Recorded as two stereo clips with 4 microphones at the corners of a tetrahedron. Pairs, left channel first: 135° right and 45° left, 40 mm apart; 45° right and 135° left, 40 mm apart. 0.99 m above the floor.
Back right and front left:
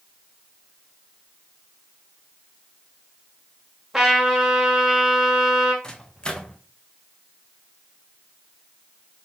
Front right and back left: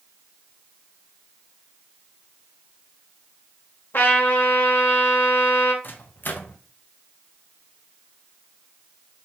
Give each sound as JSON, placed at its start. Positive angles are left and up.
{"t": 3.9, "sound": "a trumpet", "azimuth_deg": -40, "distance_m": 1.1}
{"t": 5.8, "sound": "a microwave", "azimuth_deg": -70, "distance_m": 0.6}